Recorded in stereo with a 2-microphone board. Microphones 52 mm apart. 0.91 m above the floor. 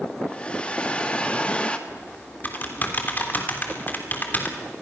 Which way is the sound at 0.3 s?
20° left (ahead or behind).